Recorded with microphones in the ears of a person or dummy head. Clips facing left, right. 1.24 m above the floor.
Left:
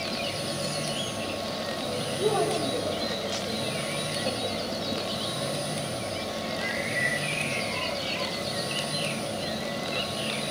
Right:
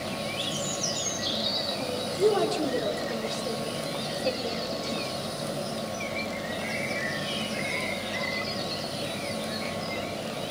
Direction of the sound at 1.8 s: 25° right (ahead or behind).